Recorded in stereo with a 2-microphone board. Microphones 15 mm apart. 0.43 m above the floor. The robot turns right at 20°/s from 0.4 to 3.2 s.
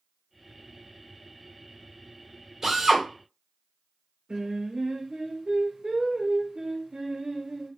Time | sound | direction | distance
2.6 | a drill | 25° right (ahead or behind) | 1.4 m
4.3 | singing | 80° right | 0.9 m